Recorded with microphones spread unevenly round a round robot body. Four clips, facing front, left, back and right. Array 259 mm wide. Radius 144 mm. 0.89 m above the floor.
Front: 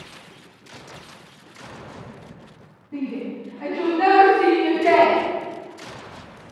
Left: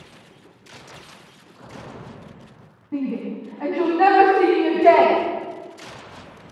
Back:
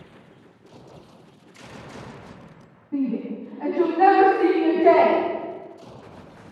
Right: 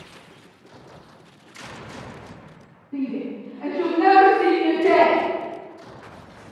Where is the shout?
95° left, 8 m.